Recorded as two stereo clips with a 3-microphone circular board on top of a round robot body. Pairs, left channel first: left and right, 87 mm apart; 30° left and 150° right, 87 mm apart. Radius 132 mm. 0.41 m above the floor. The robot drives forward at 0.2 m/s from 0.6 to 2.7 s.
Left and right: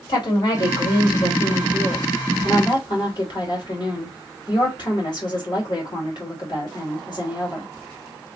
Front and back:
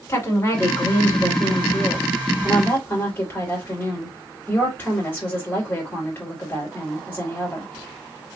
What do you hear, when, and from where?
0.1 s a woman speaking: 85° left, 2.5 m; by 7.7 s 95° left, 2.5 m